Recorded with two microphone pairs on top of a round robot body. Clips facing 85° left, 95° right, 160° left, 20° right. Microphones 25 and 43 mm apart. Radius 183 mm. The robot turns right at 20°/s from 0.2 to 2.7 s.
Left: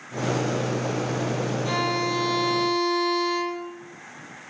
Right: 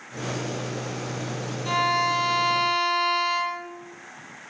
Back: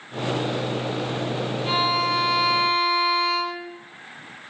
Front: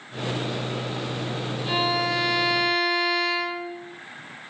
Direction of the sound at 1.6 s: 165° right.